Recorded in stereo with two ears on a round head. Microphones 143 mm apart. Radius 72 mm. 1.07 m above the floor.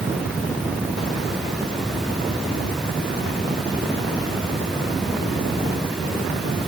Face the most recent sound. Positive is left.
No sound to turn to.